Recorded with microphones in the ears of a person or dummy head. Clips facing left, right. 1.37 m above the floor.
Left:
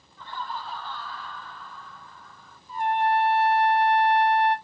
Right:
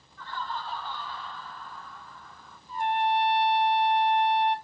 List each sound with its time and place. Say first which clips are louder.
0.2 s laughter: even; 30° left (ahead or behind), 0.7 m; by 2.6 s 60° right (ahead or behind), 1.2 m
2.7 s a trumpet: left 3 dB; 45° left (ahead or behind), 1.4 m